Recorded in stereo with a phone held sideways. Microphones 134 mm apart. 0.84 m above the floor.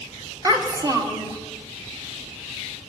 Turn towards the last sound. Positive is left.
turn(degrees=-30)  # may be behind; listen again after turning